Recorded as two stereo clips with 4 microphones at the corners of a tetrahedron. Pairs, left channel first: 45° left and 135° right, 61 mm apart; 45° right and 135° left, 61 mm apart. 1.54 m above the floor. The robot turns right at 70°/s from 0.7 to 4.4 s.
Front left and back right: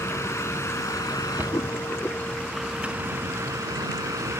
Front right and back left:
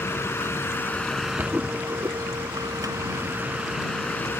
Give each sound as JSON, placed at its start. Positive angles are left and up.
{"t": 0.0, "sound": "a vehicle", "azimuth_deg": 5}
{"t": 1.4, "sound": "a cupboard door", "azimuth_deg": 175}